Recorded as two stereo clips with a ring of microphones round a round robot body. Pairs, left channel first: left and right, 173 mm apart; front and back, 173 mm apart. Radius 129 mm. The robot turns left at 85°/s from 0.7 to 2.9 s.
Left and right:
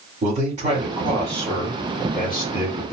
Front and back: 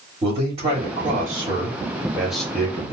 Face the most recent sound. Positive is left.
turn(degrees=45)